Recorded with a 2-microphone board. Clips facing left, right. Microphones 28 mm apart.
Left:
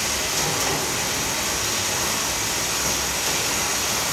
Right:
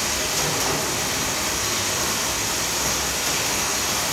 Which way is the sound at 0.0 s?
10° right (ahead or behind).